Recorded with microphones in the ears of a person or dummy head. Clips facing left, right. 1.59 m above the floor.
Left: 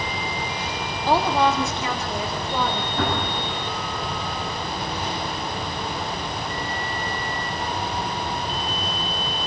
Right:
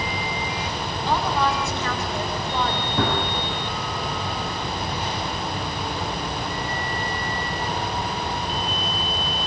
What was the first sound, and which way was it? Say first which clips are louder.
A woman speaking: left 4 dB; 35° left (ahead or behind).